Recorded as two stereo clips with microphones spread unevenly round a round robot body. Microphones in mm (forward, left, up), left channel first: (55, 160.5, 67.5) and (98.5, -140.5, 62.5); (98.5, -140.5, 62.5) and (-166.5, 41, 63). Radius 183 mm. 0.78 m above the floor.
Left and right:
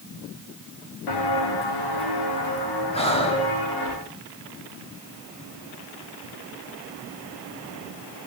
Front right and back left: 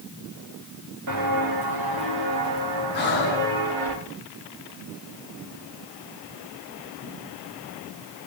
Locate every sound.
1.1 s footsteps: 100° left, 3 m; by 3.9 s 130° left, 5.5 m
2.9 s breathing: 25° left, 4.5 m